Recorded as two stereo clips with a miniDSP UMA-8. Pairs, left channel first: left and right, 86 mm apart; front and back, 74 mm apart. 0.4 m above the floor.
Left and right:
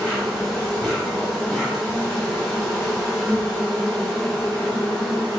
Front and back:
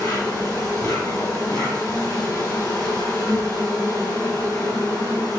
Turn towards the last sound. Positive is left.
turn(degrees=5)